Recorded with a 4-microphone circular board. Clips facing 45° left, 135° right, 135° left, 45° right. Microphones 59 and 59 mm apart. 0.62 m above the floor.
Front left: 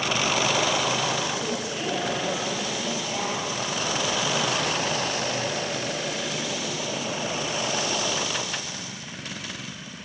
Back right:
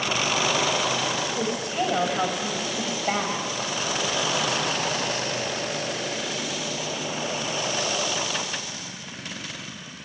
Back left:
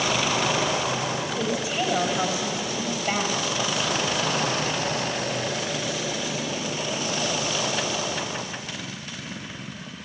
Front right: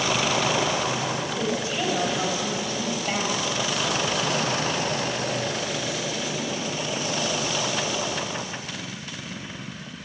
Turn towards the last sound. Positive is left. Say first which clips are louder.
# back right 3 dB, back left 1 dB
turn(degrees=-155)